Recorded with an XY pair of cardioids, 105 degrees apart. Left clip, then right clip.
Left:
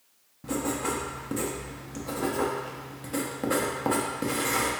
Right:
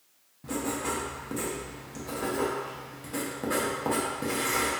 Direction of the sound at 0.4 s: 20° left.